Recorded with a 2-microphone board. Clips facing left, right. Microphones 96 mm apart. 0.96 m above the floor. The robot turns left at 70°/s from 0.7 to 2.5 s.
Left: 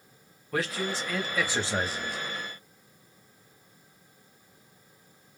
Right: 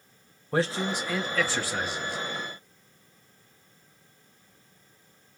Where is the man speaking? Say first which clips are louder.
Right 4 dB; 145° right, 0.9 m; by 2.2 s 115° left, 0.9 m.